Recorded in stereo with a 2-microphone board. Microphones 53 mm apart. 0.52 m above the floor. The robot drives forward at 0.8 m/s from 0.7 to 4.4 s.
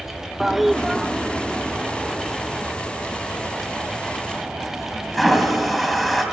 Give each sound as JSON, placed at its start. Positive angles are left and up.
{"t": 0.4, "sound": "a toilet flushing", "side_deg": 0, "distance_m": 0.6}